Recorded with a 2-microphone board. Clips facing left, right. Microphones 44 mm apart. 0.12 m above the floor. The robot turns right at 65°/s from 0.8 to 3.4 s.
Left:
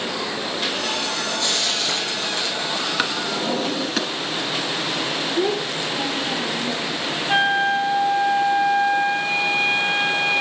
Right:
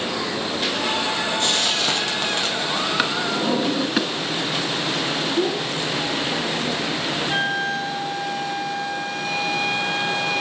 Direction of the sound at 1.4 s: 120° right.